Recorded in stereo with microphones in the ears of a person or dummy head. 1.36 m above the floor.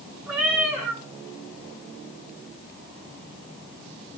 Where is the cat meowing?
10° right (ahead or behind), 6.5 m.